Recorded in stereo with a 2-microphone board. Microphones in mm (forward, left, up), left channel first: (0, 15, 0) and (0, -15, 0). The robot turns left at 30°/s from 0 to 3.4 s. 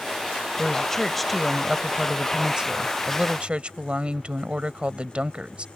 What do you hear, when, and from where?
0.6 s a woman speaking: 25° left; by 5.7 s 60° right